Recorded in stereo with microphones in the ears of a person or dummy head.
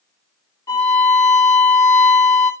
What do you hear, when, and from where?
0.7 s a violin: 15° left (ahead or behind), 1.7 m